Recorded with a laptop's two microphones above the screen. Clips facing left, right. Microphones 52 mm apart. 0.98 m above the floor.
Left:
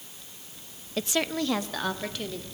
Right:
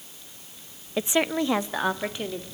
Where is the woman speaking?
20° right (ahead or behind), 0.5 m.